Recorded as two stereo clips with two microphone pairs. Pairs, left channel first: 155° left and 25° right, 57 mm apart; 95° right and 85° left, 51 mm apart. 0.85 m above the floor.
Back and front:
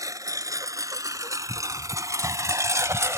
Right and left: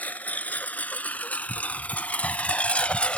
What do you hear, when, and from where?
0.0 s a lawn mower: 35° right; by 3.2 s 30° right